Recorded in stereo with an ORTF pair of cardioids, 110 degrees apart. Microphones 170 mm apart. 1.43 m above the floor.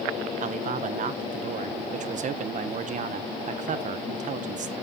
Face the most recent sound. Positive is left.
turn(degrees=-50)